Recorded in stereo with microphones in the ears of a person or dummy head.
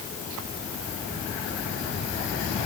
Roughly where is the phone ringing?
No phone ringing in this recording.